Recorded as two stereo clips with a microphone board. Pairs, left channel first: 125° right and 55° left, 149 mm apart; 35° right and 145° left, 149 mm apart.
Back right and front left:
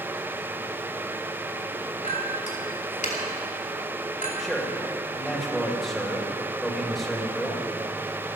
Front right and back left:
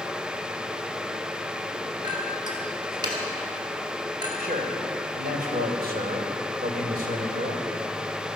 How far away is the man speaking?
About 2.5 m.